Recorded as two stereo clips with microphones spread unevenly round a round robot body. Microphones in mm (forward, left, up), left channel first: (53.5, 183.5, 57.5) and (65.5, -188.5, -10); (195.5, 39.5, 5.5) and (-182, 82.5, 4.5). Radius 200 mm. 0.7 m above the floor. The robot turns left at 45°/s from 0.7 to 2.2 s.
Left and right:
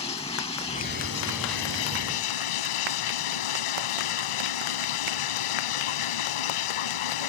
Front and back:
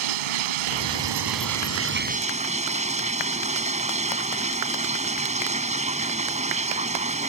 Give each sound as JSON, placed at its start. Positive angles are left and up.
{"t": 0.0, "sound": "running water", "azimuth_deg": 170}